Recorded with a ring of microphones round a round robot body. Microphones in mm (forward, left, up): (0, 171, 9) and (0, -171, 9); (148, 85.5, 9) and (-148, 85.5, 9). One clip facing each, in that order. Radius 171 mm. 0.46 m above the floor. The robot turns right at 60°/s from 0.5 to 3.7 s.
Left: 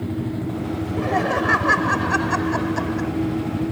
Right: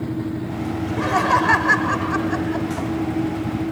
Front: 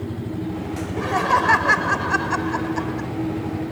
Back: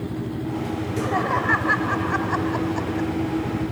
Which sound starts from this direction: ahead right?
Laughter, at 0.8 s.